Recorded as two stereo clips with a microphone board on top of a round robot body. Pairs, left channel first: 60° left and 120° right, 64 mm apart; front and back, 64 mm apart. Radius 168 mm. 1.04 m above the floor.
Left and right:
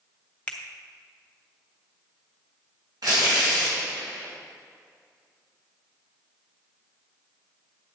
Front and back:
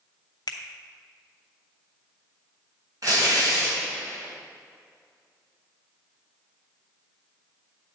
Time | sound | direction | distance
0.5 | a finger snap | 10° right | 0.8 m
3.0 | tearing paper | 145° right | 1.5 m